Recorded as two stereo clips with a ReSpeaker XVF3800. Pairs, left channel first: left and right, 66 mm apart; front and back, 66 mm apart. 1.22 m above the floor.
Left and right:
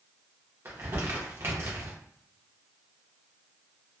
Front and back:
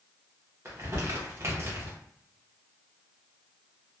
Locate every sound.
0.7 s crumpling: 135° right, 0.7 m